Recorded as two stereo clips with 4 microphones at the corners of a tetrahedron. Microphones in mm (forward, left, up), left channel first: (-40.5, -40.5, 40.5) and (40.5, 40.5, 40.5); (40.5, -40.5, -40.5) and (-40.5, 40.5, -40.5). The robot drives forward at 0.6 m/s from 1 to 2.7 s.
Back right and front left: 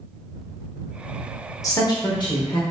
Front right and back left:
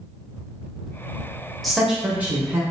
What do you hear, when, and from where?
1.6 s a woman speaking: 135° right, 0.8 m; by 2.6 s 160° right, 1.2 m